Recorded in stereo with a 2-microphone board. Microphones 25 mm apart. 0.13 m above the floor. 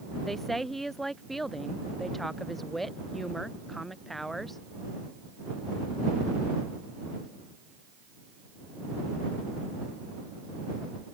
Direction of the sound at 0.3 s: 10° left (ahead or behind).